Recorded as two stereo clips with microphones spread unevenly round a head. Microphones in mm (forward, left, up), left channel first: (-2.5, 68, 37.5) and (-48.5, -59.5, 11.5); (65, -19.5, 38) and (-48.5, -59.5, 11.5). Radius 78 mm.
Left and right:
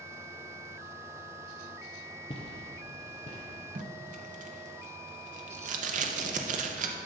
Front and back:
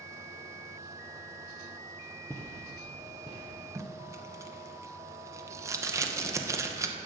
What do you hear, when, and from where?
2.3 s footsteps: 80° left, 1.6 m; by 3.6 s 60° left, 2 m
3.8 s tape being pulled: 100° right, 0.8 m